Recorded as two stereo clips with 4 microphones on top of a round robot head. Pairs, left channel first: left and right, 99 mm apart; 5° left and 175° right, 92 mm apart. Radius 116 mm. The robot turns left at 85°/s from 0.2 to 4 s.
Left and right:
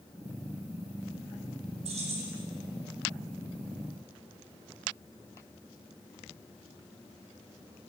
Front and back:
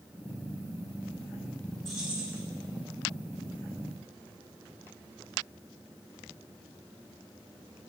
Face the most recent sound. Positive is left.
turn(degrees=100)